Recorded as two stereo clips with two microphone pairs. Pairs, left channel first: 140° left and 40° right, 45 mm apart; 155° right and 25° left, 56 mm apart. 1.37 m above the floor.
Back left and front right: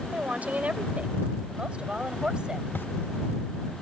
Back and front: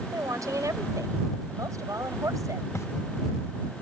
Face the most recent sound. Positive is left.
turn(degrees=175)